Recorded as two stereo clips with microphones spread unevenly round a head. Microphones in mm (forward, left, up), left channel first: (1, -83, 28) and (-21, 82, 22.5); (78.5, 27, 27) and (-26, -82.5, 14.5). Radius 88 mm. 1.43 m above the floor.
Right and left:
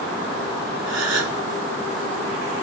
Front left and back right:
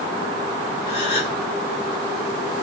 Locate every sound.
0.9 s a gasp: 110° left, 2.5 m